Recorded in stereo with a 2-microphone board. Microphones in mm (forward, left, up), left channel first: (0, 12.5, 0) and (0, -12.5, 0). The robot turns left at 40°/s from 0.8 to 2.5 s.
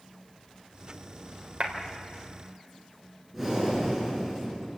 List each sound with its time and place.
1.6 s a clap: 55° right (ahead or behind), 3.5 m; by 1.7 s 50° right (ahead or behind), 3.5 m
3.3 s breathing: 5° right (ahead or behind), 8.5 m